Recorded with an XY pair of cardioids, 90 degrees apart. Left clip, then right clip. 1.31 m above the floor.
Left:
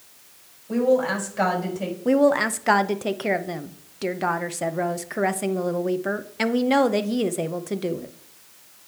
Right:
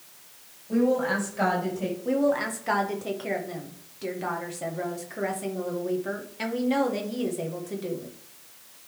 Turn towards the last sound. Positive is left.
turn(degrees=65)